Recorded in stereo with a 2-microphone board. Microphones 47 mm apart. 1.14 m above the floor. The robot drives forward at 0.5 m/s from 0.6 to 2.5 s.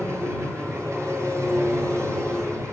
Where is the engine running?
70° right (ahead or behind), 9.5 m; by 2.7 s 75° right (ahead or behind), 9.5 m.